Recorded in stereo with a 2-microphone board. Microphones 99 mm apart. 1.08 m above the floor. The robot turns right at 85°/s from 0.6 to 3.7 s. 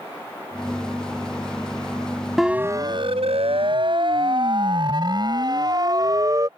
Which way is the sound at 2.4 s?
Centre (ahead or behind).